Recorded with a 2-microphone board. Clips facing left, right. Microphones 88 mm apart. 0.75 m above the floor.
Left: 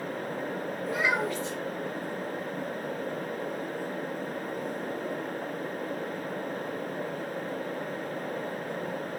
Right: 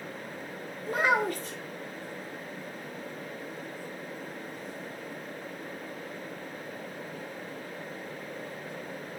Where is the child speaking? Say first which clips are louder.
Right 3 dB; 45° right (ahead or behind), 0.7 m.